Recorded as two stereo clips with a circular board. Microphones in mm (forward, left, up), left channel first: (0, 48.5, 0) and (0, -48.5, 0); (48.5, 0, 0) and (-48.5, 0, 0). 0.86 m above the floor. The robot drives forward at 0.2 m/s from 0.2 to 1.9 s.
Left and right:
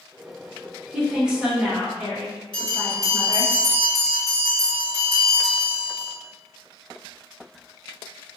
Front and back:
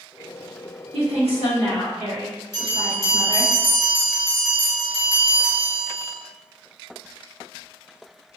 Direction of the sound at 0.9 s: 170° right.